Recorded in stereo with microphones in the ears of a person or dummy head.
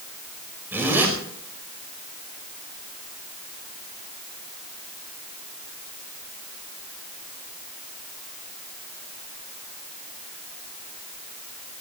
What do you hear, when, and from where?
0.7 s a zipper: 15° right (ahead or behind), 5.5 m